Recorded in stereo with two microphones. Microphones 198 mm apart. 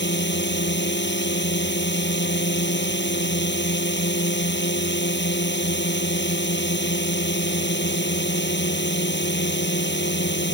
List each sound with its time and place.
0.0 s a drone: 65° left (ahead or behind)